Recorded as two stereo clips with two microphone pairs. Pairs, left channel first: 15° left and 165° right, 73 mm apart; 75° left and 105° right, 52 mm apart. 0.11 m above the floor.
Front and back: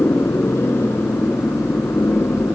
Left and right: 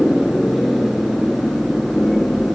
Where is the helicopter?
5° right; by 2.5 s 5° left.